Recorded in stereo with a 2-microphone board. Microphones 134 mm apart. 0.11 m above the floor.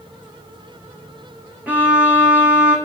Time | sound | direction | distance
1.7 | a violin | 10° right (ahead or behind) | 1.0 m